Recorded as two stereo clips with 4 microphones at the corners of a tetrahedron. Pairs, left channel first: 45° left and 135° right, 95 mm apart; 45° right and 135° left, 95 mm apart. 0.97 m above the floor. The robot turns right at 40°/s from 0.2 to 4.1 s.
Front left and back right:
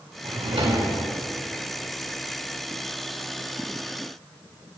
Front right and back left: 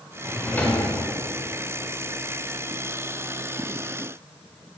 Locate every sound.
0.2 s a drawer: 130° right, 2 m; by 0.9 s 100° right, 2 m